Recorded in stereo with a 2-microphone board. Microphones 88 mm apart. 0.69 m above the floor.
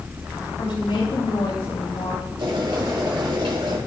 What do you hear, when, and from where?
0.6 s a woman speaking: 70° left (ahead or behind), 3.5 m; by 2.3 s 75° left (ahead or behind), 4.5 m
2.4 s boiling: 70° right (ahead or behind), 4.5 m